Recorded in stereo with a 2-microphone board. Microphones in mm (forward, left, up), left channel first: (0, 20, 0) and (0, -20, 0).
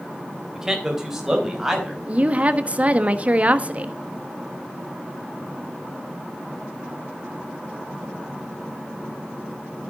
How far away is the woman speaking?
About 1.1 m.